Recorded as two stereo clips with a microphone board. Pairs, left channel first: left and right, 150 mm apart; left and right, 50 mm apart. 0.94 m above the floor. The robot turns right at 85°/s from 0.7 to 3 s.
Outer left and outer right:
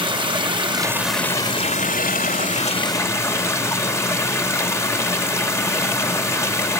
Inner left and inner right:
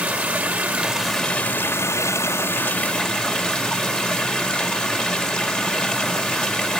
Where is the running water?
35° right, 2.5 m; by 6.8 s 160° left, 2.5 m.